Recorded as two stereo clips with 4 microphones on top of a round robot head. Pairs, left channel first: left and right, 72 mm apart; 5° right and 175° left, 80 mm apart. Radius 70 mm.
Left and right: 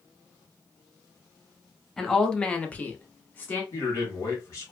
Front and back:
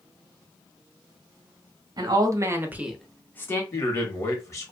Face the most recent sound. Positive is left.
turn(degrees=45)